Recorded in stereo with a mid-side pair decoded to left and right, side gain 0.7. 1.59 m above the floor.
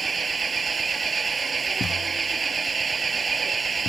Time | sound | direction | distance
0.0 | an engine running | 25° right | ?
1.8 | a thud | 25° left | ?